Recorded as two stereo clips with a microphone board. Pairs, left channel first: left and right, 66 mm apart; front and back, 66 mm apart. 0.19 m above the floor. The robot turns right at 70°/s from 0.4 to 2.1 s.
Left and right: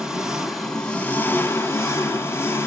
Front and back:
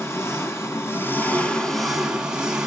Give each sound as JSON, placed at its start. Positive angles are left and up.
{"t": 0.0, "sound": "an engine running", "azimuth_deg": -15, "distance_m": 1.7}